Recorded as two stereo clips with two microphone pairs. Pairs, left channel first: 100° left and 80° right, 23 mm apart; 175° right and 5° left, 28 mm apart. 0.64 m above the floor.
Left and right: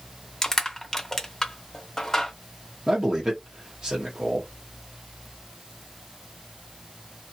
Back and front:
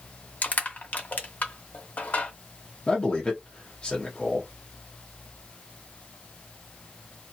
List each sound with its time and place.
0.4 s crushing: 170° left, 0.8 m
2.9 s a man speaking: 125° right, 0.9 m